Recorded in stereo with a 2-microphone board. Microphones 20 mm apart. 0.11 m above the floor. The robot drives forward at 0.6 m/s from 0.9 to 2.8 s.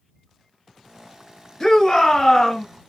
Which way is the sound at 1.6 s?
25° left (ahead or behind).